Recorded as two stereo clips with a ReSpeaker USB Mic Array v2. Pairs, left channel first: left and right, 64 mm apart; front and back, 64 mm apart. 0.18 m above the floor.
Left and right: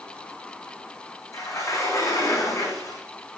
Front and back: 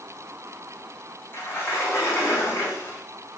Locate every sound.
1.3 s a sliding door: 50° left, 7.5 m